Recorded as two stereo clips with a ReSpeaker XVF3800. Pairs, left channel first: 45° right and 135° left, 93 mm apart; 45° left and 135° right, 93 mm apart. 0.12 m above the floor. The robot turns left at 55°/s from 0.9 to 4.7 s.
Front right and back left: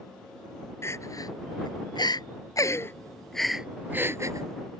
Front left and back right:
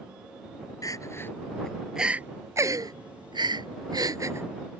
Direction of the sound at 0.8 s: 5° left.